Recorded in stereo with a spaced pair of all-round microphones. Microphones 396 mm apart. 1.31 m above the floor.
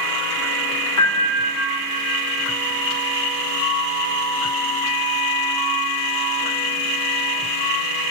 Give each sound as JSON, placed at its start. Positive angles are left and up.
{"t": 1.0, "sound": "a piano", "side_deg": 45, "distance_m": 2.0}